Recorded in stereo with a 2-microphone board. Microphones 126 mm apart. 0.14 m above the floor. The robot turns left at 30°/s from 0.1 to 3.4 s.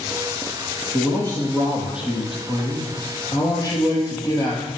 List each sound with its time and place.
0.9 s a man speaking: 140° right, 3.5 m; by 4.7 s 150° left, 3.5 m